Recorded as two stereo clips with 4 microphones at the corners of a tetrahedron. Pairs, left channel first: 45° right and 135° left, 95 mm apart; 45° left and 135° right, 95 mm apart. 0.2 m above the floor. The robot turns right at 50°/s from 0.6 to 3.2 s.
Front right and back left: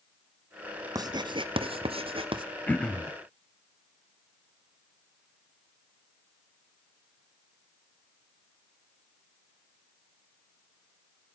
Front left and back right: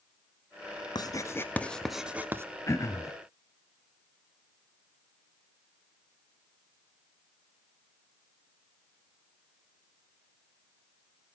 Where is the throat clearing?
15° left, 1.4 m; by 3.1 s 40° left, 1.4 m.